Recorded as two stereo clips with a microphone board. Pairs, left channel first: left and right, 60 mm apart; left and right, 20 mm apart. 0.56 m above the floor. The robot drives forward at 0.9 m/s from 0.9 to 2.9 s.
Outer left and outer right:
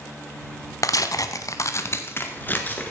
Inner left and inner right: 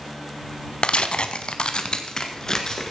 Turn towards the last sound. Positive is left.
turn(degrees=25)  # may be behind; listen again after turning